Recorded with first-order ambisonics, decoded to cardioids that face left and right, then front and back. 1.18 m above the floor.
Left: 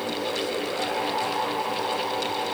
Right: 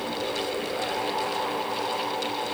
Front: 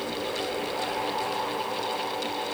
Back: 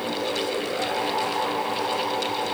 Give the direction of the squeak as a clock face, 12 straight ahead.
I don't hear a squeak.